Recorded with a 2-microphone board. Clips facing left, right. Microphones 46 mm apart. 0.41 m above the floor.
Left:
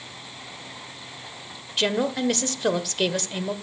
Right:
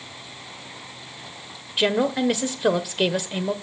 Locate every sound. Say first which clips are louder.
1.8 s a woman speaking: right 3 dB; 10° right (ahead or behind), 1.2 m